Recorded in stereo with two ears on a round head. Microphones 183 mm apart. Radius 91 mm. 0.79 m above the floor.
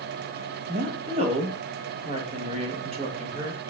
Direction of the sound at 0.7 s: 30° right (ahead or behind).